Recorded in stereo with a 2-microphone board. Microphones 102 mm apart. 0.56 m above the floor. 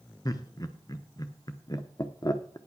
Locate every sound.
0.2 s laughter: 35° left (ahead or behind), 0.8 m